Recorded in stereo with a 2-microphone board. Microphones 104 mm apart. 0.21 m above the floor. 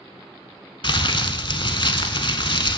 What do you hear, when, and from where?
0.8 s crumpling: 55° left (ahead or behind), 0.7 m